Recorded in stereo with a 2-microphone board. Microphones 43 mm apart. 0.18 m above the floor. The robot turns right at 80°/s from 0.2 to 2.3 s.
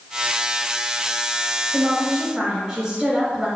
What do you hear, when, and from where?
1.7 s a woman speaking: 20° right (ahead or behind), 1.1 m; by 3.5 s 15° right (ahead or behind), 1.1 m